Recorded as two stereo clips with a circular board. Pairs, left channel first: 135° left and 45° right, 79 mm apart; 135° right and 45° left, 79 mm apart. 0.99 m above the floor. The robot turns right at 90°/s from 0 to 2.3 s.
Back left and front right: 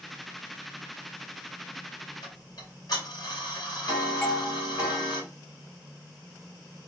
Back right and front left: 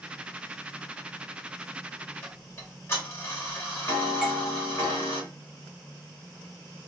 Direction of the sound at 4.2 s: 130° left.